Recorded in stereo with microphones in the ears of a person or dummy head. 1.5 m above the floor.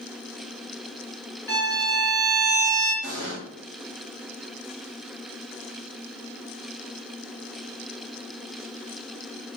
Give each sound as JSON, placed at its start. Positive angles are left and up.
{"t": 1.5, "sound": "a violin", "side_deg": 10, "distance_m": 1.4}
{"t": 3.0, "sound": "an explosion", "side_deg": -70, "distance_m": 1.0}